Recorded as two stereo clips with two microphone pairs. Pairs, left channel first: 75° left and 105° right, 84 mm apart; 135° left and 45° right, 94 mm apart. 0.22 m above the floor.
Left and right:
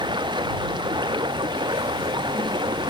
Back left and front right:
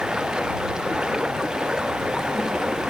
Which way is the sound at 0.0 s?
125° right.